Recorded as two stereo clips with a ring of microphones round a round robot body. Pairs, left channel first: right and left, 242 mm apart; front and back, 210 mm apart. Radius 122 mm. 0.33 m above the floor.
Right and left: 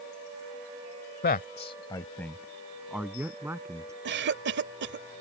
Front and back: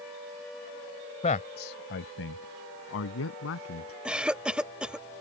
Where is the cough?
95° left.